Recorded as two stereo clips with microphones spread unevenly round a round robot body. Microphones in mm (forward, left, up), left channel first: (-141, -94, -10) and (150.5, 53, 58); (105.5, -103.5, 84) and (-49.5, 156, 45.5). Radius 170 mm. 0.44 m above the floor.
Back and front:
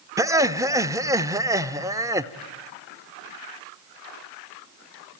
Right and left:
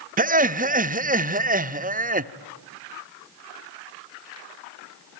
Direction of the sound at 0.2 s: 120° left.